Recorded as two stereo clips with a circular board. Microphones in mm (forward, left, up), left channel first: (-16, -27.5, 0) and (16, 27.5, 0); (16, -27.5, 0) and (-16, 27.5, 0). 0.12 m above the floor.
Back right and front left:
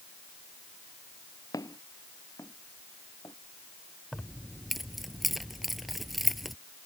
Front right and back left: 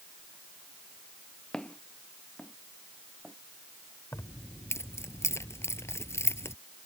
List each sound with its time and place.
1.5 s footsteps: 135° right; by 3.4 s 145° right
4.1 s keys jangling: 30° right